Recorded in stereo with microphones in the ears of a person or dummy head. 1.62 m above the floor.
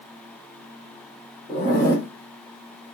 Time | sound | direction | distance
1.5 | a zipper | 20° left (ahead or behind) | 0.9 m